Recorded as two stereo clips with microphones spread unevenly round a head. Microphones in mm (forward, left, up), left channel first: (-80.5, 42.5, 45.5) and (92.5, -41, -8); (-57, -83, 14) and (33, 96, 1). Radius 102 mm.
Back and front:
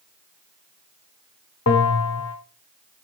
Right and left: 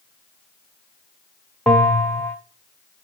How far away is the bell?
About 1.0 m.